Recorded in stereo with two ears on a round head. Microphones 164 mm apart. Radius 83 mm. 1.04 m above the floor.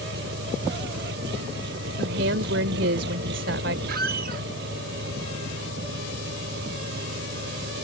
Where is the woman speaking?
70° right (ahead or behind).